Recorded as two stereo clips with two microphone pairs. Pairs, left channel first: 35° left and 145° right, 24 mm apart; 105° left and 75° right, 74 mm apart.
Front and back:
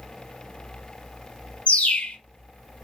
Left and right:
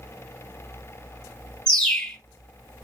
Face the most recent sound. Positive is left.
turn(degrees=30)